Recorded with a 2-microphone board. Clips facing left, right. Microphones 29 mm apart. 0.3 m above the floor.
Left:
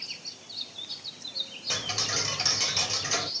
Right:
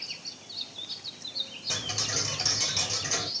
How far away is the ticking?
About 0.8 m.